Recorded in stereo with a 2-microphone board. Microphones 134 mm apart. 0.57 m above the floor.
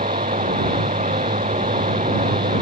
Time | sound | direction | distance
0.0 | running water | 65° right (ahead or behind) | ?